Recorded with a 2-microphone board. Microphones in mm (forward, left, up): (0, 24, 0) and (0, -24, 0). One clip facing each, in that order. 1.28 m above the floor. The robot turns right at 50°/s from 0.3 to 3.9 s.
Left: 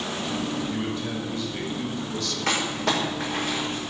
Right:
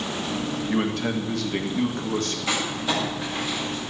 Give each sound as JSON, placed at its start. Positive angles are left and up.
{"t": 0.7, "sound": "a man speaking", "azimuth_deg": -125, "distance_m": 1.7}
{"t": 2.5, "sound": "crumpling", "side_deg": 60, "distance_m": 6.0}